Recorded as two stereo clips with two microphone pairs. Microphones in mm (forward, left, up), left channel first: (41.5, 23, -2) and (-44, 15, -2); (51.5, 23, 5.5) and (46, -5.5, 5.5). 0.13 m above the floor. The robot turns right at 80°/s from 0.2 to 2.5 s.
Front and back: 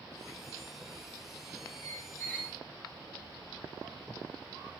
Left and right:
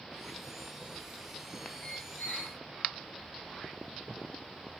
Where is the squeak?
30° left, 1.3 m; by 2.6 s 85° left, 1.3 m.